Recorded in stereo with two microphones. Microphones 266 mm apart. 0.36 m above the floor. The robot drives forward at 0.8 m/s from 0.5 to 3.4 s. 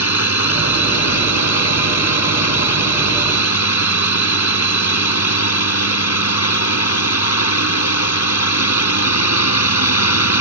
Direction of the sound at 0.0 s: 65° left (ahead or behind).